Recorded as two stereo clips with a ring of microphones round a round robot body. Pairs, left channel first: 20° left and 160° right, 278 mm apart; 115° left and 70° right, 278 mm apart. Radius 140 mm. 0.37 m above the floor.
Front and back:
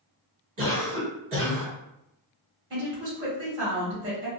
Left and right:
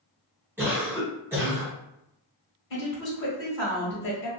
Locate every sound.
0.6 s a cough: 145° right, 1.6 m
2.7 s a woman speaking: 140° left, 1.2 m